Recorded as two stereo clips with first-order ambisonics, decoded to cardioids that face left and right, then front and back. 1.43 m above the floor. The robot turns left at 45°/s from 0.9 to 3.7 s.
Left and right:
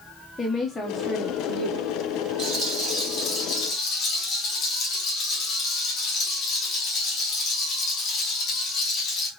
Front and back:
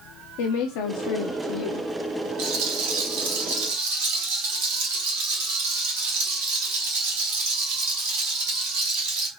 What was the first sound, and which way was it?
A woman speaking, 10° left.